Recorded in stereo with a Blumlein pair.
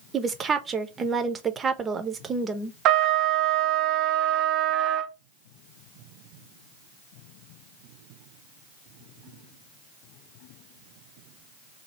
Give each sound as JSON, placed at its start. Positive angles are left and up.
{"t": 0.1, "sound": "a woman speaking", "azimuth_deg": -20, "distance_m": 0.8}
{"t": 2.9, "sound": "a trumpet", "azimuth_deg": -35, "distance_m": 0.5}